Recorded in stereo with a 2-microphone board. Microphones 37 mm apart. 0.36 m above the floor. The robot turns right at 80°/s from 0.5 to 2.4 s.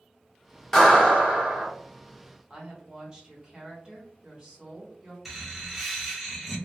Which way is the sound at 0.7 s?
170° left.